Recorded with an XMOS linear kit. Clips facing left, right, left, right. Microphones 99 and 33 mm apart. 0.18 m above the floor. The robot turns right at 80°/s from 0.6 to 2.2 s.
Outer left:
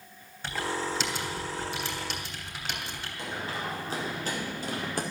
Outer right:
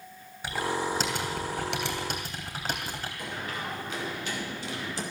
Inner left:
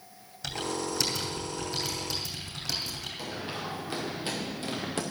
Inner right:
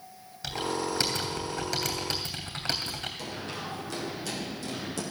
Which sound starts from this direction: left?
Running footsteps, at 3.2 s.